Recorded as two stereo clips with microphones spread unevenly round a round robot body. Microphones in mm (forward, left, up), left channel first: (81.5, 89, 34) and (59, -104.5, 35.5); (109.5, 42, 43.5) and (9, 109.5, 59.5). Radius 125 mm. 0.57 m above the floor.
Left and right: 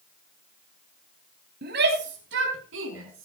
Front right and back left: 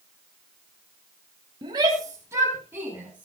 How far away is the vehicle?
No vehicle in this recording.